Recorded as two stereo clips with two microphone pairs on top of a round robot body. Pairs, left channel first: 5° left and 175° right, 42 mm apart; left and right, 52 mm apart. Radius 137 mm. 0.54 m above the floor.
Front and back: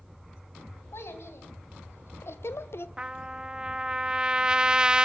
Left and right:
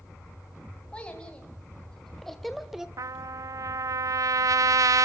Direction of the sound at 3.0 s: 105° right.